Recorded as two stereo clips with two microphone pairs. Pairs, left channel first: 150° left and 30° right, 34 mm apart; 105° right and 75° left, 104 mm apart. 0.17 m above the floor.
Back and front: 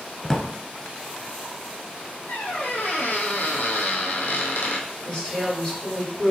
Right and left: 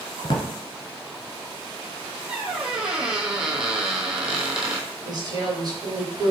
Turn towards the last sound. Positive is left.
turn(degrees=95)